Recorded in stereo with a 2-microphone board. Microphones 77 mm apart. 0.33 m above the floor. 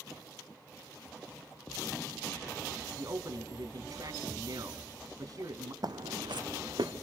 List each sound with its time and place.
3.0 s a man speaking: 55° right (ahead or behind), 2.5 m
5.8 s footsteps: 60° right (ahead or behind), 1.2 m; by 6.9 s 80° right, 2.5 m